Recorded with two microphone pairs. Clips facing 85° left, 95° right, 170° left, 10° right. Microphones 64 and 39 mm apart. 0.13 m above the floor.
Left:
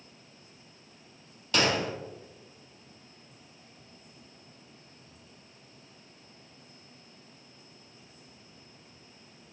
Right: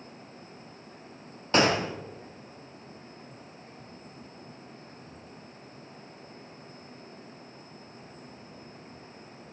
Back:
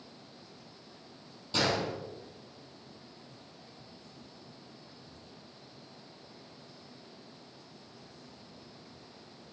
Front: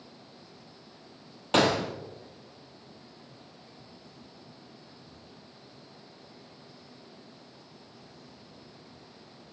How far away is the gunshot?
About 1.8 m.